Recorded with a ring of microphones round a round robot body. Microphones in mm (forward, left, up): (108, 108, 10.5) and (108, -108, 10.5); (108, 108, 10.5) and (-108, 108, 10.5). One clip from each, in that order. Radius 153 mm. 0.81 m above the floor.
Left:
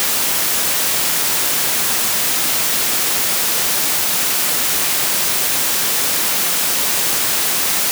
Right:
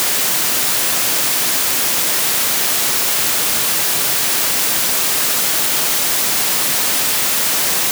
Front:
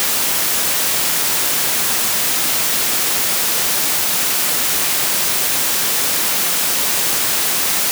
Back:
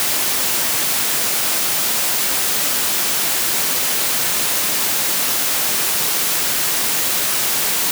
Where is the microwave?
No microwave in this recording.